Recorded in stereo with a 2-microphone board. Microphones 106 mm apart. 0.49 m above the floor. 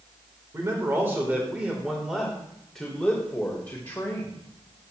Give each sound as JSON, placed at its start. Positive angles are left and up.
{"t": 0.5, "sound": "a man speaking", "side_deg": -30, "distance_m": 2.0}